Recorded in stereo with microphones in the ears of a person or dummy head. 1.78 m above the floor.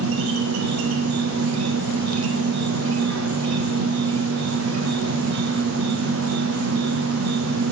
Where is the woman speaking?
I don't hear a woman speaking.